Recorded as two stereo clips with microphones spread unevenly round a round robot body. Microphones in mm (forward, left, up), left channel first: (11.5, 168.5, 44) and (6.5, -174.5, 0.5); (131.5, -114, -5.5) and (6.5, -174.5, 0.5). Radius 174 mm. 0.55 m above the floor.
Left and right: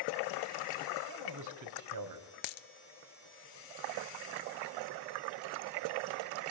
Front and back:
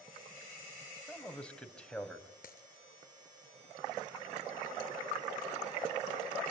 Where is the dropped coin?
75° left, 0.6 m.